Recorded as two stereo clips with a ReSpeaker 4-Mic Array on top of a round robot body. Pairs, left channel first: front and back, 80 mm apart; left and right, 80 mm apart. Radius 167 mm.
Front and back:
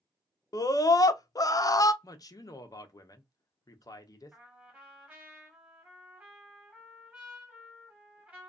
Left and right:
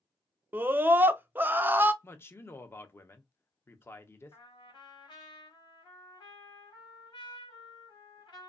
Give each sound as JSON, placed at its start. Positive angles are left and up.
{"t": 0.5, "sound": "a scream", "azimuth_deg": -30, "distance_m": 0.7}
{"t": 2.0, "sound": "a man speaking", "azimuth_deg": 30, "distance_m": 0.8}
{"t": 4.3, "sound": "a trumpet", "azimuth_deg": 105, "distance_m": 1.3}